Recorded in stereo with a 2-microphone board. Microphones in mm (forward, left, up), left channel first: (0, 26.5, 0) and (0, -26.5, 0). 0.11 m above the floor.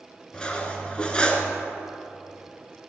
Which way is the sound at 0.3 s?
20° left (ahead or behind).